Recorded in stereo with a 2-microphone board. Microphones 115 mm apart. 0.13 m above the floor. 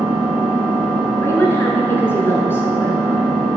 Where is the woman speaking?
20° left (ahead or behind), 1.3 m.